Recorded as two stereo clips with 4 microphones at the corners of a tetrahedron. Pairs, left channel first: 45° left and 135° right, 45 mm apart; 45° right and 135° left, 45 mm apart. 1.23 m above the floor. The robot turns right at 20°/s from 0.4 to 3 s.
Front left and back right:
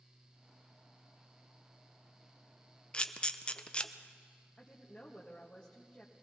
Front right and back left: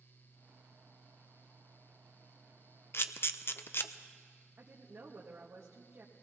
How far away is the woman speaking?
About 1.4 m.